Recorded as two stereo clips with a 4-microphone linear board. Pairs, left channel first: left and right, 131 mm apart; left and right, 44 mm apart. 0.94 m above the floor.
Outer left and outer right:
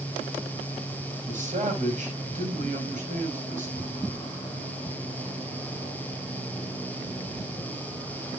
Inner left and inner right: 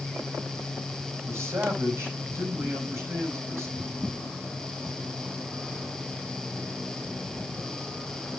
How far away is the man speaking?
About 5 m.